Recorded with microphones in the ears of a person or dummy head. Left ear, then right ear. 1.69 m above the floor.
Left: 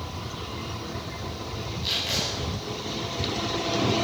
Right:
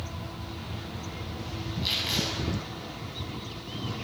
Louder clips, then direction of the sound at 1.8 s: Left 1 dB; 5° right (ahead or behind).